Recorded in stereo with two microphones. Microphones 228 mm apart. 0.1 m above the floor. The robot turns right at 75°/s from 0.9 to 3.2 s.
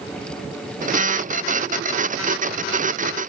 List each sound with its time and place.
Only background noise.